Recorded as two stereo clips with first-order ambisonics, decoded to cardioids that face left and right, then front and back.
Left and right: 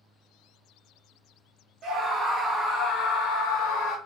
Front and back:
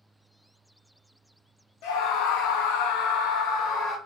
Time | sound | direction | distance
1.8 | a scream | 25° right | 0.7 m